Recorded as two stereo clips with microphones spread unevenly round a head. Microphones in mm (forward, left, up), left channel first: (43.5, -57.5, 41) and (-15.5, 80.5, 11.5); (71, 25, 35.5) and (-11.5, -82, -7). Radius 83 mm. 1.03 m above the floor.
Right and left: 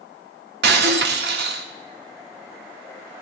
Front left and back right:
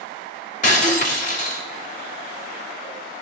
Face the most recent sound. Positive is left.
turn(degrees=95)